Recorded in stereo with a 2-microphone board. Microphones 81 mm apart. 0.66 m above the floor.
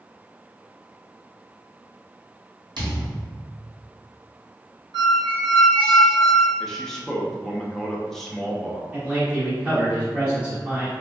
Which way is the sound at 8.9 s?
15° right (ahead or behind).